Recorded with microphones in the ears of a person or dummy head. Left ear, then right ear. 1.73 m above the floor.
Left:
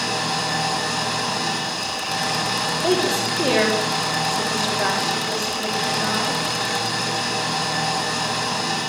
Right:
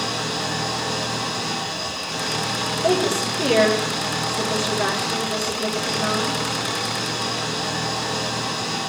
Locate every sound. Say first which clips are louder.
0.0 s an engine running: left 2 dB; 60° left (ahead or behind), 4 m
2.8 s a woman speaking: right 1 dB; 20° left (ahead or behind), 4 m